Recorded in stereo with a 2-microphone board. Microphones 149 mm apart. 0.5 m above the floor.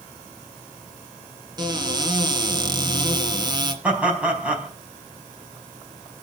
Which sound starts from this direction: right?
A cupboard door, at 1.6 s.